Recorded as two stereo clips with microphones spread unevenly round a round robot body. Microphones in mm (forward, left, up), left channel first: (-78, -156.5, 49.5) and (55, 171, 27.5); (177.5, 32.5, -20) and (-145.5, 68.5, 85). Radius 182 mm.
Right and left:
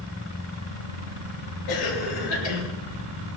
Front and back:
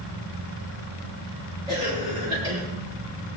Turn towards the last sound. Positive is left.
turn(degrees=-110)